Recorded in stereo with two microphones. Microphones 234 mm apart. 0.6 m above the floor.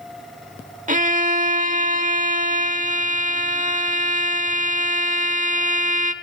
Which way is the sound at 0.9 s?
35° right (ahead or behind).